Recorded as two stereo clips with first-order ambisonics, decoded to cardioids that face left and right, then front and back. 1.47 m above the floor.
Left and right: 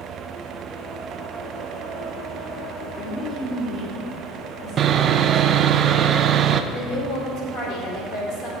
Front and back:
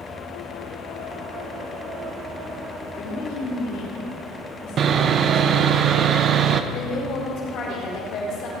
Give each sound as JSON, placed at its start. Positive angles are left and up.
{"t": 2.9, "sound": "a woman speaking", "azimuth_deg": 0, "distance_m": 4.5}
{"t": 4.8, "sound": "sawing", "azimuth_deg": -135, "distance_m": 0.7}
{"t": 6.7, "sound": "a woman speaking", "azimuth_deg": 45, "distance_m": 6.5}